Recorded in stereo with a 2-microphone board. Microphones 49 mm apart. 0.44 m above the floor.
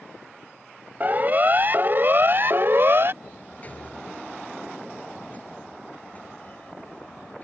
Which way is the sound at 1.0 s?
35° right (ahead or behind).